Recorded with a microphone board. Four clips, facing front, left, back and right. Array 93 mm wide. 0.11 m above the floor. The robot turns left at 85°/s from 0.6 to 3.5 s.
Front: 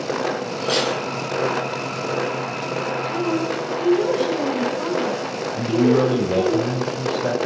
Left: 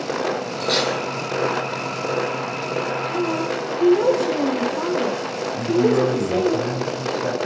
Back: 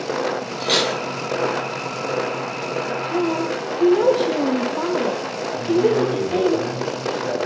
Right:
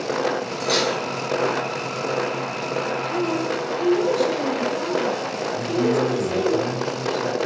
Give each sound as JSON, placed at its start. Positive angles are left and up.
{"t": 0.6, "sound": "cutlery clinking", "azimuth_deg": -160, "distance_m": 2.5}
{"t": 3.1, "sound": "a woman speaking", "azimuth_deg": -175, "distance_m": 4.0}
{"t": 5.6, "sound": "a man speaking", "azimuth_deg": 10, "distance_m": 4.5}